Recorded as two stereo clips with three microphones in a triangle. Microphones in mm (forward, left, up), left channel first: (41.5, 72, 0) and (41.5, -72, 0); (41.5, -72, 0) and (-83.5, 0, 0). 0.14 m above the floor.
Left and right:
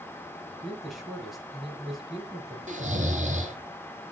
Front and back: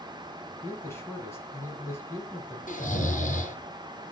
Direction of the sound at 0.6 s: Straight ahead.